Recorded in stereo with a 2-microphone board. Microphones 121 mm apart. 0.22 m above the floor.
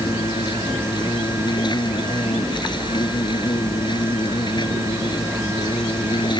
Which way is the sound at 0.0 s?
40° left (ahead or behind).